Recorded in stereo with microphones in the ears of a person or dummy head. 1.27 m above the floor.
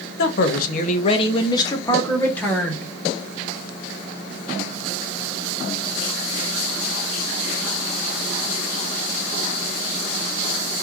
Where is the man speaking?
70° left (ahead or behind), 1.0 m; by 2.9 s 5° left (ahead or behind), 1.8 m.